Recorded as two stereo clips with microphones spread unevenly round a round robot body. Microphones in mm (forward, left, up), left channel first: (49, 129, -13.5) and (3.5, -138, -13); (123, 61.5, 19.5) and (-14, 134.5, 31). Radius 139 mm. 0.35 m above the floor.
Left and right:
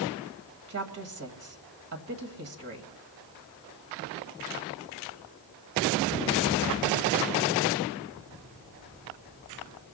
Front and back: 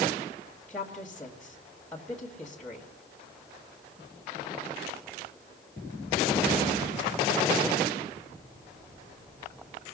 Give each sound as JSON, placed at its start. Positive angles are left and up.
{"t": 0.7, "sound": "a woman speaking", "azimuth_deg": -110, "distance_m": 1.8}